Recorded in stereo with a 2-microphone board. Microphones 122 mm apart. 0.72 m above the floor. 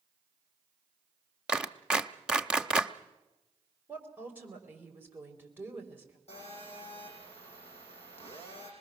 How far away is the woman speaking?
About 3.5 m.